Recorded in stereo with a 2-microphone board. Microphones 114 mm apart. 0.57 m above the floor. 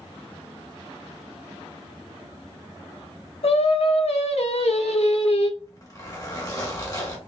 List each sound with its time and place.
3.4 s singing: 65° left (ahead or behind), 0.9 m
5.6 s a zipper: 25° left (ahead or behind), 1.7 m